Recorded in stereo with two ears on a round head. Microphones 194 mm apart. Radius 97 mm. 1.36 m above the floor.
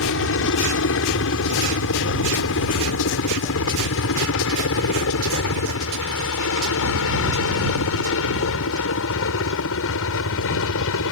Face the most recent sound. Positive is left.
turn(degrees=65)  # may be behind; listen again after turning